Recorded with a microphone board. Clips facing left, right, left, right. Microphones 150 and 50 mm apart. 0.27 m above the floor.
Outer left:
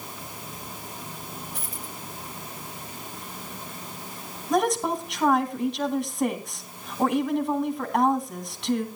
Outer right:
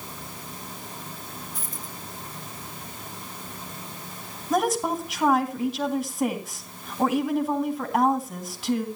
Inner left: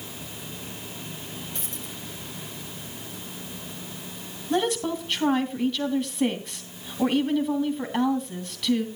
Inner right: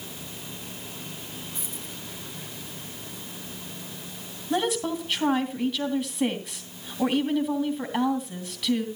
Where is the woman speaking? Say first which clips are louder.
Even, inner left 1 dB; 5° right (ahead or behind), 2.5 m.